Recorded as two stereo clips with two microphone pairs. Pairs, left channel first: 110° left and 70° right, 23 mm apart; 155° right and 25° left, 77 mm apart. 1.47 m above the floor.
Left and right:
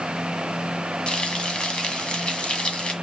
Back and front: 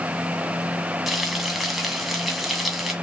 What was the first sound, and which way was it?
Frying, 110° left.